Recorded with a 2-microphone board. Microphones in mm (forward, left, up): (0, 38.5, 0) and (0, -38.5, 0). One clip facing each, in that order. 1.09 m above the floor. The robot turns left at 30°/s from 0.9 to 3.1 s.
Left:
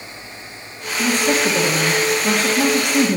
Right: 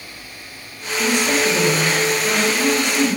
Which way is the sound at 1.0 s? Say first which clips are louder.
Left 1 dB; 135° left.